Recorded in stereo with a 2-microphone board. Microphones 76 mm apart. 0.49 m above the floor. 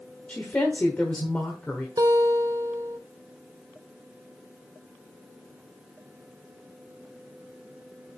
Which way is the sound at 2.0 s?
65° right (ahead or behind).